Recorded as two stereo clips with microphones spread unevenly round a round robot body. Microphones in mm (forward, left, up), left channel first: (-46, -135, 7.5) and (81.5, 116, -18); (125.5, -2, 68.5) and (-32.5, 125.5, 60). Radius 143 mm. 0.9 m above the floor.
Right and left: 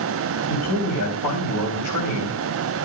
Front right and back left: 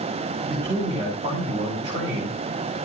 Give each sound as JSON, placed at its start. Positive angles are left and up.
{"t": 0.5, "sound": "a man speaking", "azimuth_deg": -145, "distance_m": 4.0}